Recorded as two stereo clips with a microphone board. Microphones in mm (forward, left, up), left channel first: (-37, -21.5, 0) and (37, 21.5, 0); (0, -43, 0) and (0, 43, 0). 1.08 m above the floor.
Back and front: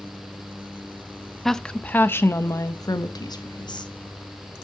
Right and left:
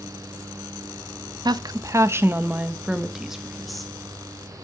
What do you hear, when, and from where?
1.4 s a woman speaking: 125° left, 0.9 m; by 3.9 s straight behind, 1.8 m